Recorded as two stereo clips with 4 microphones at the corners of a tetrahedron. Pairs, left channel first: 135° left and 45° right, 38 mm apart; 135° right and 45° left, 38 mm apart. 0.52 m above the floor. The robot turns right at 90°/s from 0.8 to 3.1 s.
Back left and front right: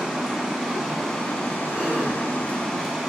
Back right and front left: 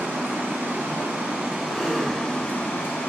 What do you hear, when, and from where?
0.0 s running water: 30° left, 0.8 m; by 3.1 s 120° right, 0.8 m
1.7 s a gasp: 115° right, 0.9 m; by 2.2 s 70° right, 0.9 m